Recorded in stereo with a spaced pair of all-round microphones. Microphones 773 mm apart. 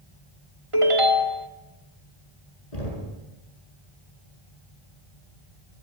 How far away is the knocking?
About 8.5 m.